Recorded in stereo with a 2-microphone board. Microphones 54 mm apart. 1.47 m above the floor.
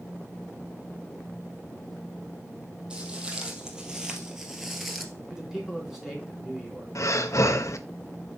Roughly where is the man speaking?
Centre.